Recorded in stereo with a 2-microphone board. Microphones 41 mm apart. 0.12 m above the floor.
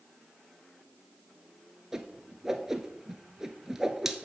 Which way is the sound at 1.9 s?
15° right (ahead or behind).